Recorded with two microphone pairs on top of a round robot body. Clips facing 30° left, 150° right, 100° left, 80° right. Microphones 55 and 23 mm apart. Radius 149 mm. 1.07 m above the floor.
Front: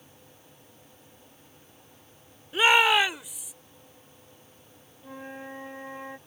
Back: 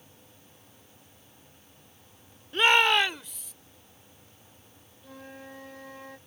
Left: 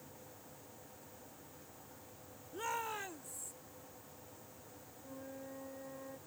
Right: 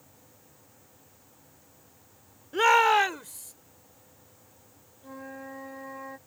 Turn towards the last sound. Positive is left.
turn(degrees=-35)